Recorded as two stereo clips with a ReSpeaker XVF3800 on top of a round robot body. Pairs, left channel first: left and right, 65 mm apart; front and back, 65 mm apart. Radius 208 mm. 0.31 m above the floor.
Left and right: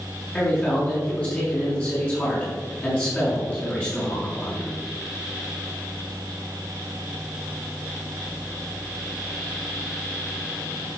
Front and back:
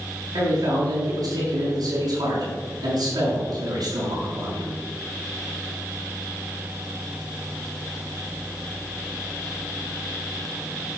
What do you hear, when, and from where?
0.3 s a man speaking: 155° left, 6 m